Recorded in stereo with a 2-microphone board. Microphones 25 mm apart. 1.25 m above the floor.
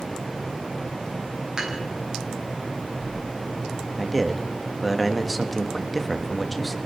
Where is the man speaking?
Centre (ahead or behind), 1.7 m.